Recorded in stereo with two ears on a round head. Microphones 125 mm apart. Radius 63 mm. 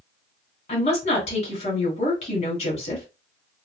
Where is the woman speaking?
45° left (ahead or behind), 2.0 m.